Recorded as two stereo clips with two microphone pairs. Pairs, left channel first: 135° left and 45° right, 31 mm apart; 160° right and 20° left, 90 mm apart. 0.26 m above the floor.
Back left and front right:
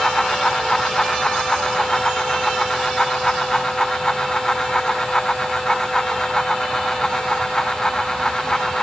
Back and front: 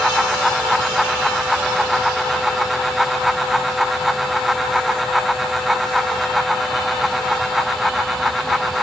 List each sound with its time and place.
Only background noise.